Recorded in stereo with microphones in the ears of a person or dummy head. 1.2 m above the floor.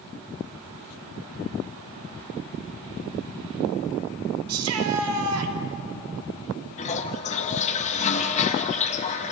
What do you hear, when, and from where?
4.5 s a shout: 85° right, 2.5 m
6.8 s a toilet flushing: 40° left (ahead or behind), 1.6 m